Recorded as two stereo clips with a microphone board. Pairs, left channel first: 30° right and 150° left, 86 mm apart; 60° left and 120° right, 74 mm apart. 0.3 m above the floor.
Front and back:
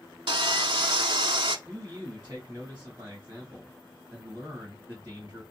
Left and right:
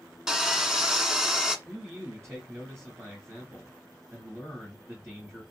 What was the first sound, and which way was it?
Sawing, 160° left.